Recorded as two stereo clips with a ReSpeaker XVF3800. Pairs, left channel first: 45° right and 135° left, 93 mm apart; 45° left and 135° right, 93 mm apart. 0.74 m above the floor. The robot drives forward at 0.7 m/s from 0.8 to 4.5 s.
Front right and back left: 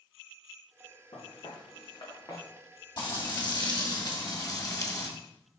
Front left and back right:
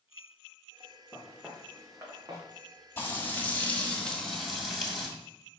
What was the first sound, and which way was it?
Footsteps, 50° right.